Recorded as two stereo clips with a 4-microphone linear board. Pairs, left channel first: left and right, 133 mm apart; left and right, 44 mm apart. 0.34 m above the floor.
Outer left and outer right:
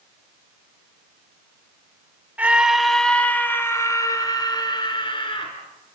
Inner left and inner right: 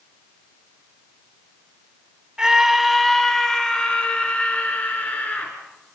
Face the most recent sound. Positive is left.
turn(degrees=40)  # may be behind; listen again after turning